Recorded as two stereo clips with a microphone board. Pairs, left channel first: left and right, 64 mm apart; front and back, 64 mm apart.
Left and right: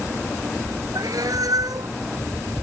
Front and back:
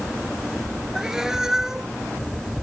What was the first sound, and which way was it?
A cat meowing, 100° right.